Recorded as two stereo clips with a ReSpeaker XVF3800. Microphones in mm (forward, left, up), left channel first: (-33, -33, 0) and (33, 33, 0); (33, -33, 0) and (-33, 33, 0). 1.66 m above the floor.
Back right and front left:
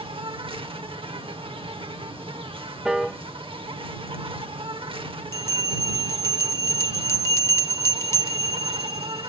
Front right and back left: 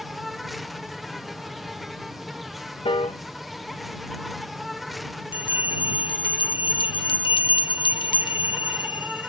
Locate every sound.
0.0 s an insect: 45° left
2.9 s a piano: 40° right
5.3 s a bell: 75° right